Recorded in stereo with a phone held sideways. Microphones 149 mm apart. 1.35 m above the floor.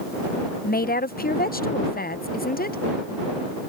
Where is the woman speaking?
85° left.